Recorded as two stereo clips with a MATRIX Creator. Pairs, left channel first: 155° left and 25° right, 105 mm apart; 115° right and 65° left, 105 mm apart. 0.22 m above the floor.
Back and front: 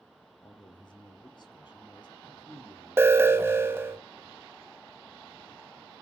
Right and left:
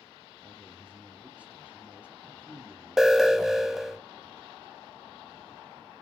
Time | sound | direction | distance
0.4 | a man speaking | 140° left | 1.6 m
3.0 | an alarm | 15° right | 0.8 m